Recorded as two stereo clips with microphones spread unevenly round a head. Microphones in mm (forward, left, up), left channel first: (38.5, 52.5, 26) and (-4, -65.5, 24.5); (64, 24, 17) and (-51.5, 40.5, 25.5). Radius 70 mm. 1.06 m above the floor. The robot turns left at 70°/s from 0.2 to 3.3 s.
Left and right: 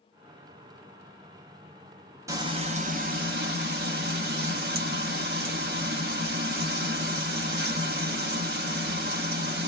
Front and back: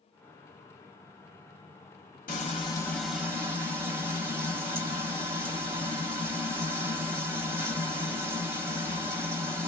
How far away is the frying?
About 0.9 m.